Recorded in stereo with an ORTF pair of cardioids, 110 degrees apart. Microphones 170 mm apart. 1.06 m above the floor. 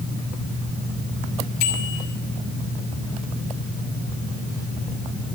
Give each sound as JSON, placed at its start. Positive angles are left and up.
{"t": 1.6, "sound": "a bicycle bell", "azimuth_deg": 65, "distance_m": 3.0}